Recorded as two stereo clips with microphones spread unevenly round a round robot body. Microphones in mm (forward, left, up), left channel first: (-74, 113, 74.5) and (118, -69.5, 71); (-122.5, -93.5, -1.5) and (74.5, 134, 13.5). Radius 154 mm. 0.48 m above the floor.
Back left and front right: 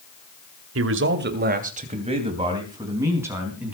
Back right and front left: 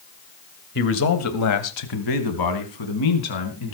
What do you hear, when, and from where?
0.8 s a man speaking: 75° right, 1.8 m; by 3.7 s 130° right, 4.5 m